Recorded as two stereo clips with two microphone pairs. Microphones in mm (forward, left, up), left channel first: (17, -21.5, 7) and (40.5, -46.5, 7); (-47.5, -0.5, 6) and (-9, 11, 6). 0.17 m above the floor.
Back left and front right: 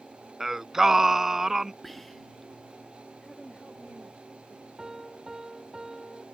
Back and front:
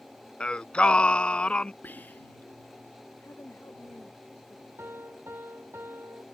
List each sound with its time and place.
0.4 s singing: 115° right
1.8 s whispering: 140° right
3.2 s a woman speaking: 165° right
4.8 s a piano: 25° left